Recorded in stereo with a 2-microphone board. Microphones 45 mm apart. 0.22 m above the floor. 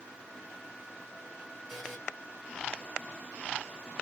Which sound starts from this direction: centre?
A buzzer, at 1.7 s.